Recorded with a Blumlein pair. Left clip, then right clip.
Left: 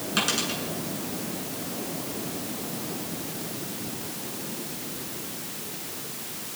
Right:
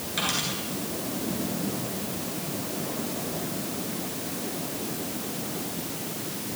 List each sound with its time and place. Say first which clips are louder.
0.2 s a dropped coin: left 2 dB; 45° left, 8 m